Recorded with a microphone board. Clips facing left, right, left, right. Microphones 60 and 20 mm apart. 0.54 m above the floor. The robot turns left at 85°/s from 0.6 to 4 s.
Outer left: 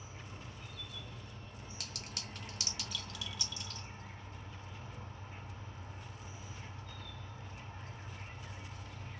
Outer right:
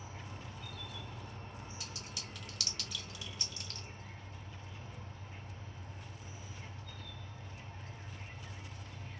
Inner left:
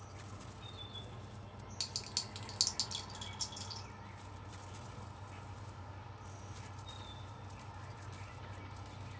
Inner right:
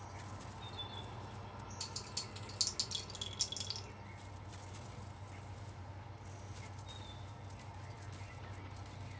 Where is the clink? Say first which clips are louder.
Even, inner left 5 dB; 70° left (ahead or behind), 0.9 m; by 3.9 s 65° right (ahead or behind), 0.9 m.